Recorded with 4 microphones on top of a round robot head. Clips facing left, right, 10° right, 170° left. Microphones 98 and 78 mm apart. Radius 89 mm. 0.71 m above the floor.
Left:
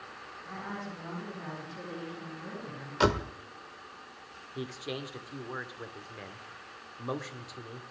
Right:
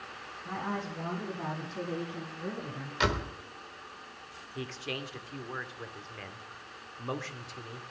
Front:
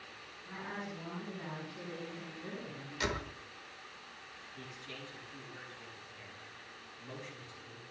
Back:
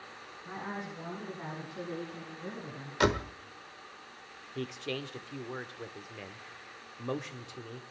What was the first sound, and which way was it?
A woman speaking, 130° right.